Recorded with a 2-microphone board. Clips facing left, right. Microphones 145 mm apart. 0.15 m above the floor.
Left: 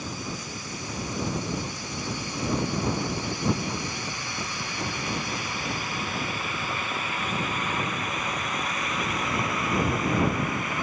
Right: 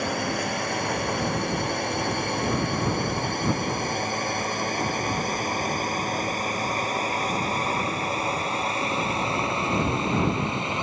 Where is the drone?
80° right; by 10.8 s 25° right (ahead or behind).